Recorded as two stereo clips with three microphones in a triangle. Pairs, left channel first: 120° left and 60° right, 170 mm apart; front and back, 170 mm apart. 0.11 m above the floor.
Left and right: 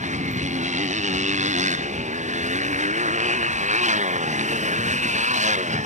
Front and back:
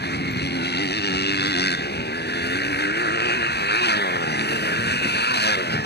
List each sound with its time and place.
0.0 s a motorcycle: 15° right